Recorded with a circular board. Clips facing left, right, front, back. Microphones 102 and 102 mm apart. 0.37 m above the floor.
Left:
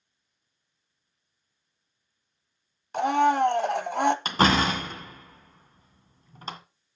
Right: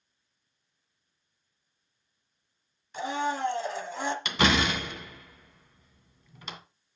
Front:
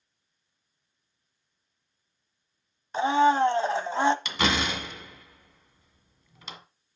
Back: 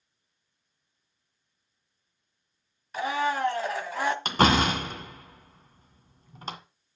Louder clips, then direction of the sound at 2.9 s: Left 9 dB, front 7 dB; 65° left.